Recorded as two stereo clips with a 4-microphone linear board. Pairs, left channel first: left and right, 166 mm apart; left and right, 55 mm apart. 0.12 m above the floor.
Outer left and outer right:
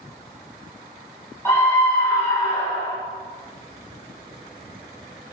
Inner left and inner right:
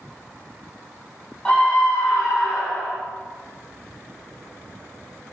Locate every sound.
1.4 s a scream: 15° left (ahead or behind), 4 m